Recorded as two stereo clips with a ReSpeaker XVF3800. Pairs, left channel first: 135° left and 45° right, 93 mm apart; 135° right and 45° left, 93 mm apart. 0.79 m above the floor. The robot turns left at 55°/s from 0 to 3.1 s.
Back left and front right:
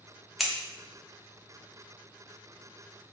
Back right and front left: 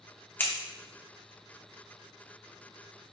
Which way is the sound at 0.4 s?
130° right.